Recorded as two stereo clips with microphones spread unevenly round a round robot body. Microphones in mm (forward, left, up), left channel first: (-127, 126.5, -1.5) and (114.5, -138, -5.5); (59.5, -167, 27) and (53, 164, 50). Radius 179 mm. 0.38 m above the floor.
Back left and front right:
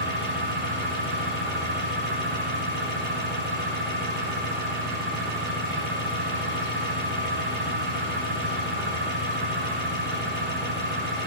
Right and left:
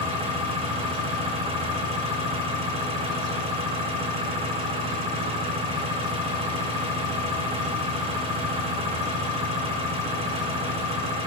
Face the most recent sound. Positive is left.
turn(degrees=20)